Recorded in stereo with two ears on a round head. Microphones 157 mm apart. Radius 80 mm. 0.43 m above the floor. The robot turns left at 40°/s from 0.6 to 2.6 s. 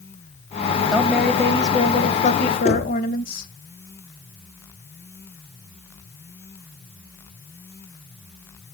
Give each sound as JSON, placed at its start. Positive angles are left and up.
{"t": 0.9, "sound": "a woman speaking", "azimuth_deg": -175, "distance_m": 1.9}
{"t": 2.6, "sound": "knocking", "side_deg": 40, "distance_m": 4.0}